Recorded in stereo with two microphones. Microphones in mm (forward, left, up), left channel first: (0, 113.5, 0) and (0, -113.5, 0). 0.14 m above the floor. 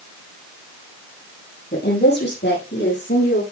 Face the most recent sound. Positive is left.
turn(degrees=55)  # may be behind; listen again after turning